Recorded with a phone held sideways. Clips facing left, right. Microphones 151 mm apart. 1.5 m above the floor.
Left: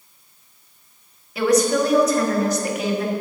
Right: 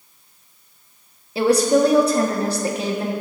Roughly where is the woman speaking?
Right.